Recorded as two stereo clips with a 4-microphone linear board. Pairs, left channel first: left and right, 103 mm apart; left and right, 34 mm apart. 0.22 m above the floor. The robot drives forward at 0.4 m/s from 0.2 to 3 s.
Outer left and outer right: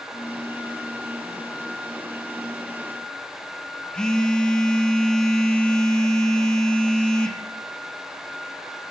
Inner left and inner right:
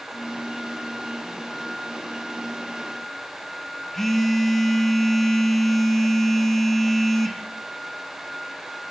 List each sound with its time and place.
3.9 s a phone buzzing: 5° left (ahead or behind), 1.3 m